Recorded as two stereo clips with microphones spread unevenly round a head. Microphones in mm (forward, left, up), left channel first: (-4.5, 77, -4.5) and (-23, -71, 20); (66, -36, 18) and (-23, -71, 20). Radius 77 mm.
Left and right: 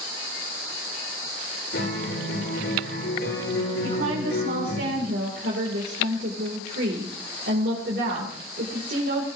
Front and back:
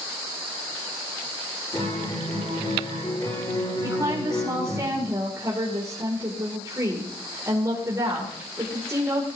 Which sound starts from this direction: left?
A guitar, at 1.7 s.